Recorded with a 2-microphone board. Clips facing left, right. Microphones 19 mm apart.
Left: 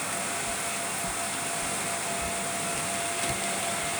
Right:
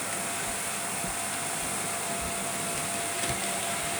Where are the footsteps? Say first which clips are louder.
Left 2 dB; 10° right (ahead or behind); by 3.9 s 60° right (ahead or behind).